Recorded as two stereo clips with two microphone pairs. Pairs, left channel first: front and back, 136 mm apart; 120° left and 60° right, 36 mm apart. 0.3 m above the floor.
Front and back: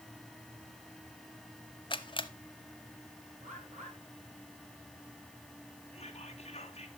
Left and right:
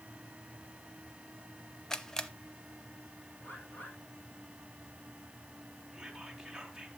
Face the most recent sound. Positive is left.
turn(degrees=20)